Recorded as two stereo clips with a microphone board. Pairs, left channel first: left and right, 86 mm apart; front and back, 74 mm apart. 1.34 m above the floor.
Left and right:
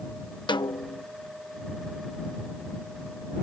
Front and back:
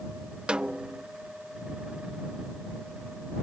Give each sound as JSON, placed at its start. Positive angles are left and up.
{"t": 0.5, "sound": "a snare drum", "azimuth_deg": 105}